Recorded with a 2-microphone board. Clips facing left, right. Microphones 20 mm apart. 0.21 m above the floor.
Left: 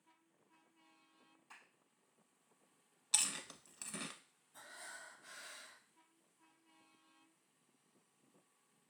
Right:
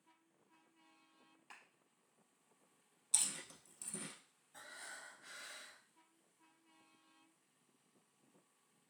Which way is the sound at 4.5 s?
35° right (ahead or behind).